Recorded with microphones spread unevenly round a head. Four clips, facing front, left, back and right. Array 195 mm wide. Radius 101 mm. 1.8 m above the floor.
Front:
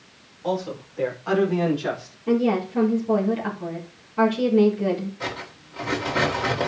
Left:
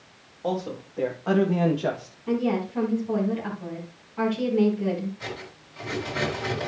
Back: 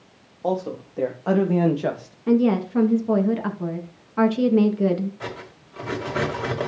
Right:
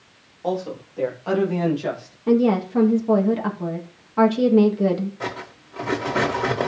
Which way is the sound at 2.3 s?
130° right.